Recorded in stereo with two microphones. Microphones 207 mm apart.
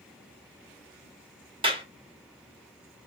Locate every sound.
1.6 s a clap: 25° right (ahead or behind), 0.7 m